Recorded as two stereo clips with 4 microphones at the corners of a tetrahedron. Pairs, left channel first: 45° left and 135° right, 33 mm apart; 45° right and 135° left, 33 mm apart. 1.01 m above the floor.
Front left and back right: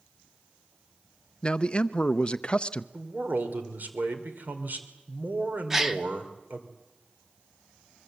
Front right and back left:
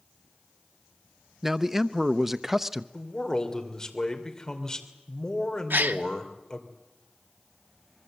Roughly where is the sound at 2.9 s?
Behind right.